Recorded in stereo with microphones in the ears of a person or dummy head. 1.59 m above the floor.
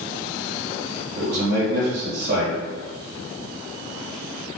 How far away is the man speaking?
About 1.3 m.